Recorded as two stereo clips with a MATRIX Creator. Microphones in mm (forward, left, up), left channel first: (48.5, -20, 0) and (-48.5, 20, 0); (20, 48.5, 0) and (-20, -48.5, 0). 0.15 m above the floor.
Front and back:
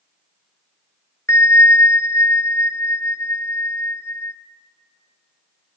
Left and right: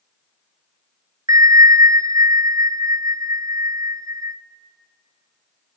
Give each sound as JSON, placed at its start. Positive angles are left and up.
{"t": 1.3, "sound": "a bell", "azimuth_deg": -75, "distance_m": 0.7}